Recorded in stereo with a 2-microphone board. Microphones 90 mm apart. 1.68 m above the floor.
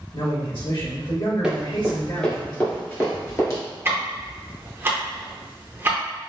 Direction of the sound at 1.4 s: 10° right (ahead or behind).